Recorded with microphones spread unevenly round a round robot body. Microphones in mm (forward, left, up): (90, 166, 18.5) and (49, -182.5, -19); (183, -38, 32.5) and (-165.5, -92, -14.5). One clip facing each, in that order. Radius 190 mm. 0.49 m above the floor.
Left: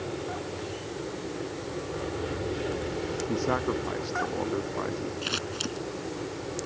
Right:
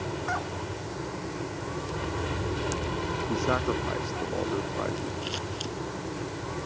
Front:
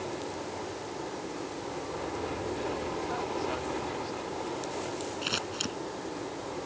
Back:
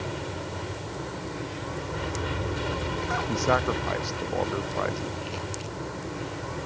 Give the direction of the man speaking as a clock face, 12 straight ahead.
6 o'clock.